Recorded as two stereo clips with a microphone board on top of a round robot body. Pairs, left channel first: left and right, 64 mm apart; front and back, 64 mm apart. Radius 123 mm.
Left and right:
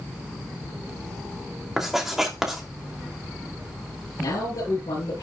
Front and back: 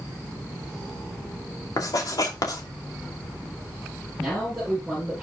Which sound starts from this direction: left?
A man speaking, at 4.2 s.